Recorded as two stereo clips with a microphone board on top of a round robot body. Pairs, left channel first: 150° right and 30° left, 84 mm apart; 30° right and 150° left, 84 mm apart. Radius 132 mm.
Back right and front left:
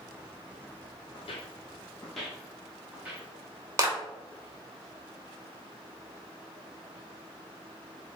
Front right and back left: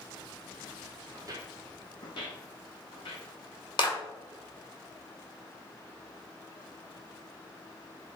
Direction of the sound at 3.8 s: 20° right.